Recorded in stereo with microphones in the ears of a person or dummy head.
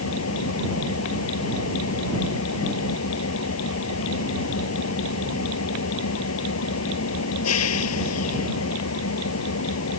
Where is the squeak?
I don't hear a squeak.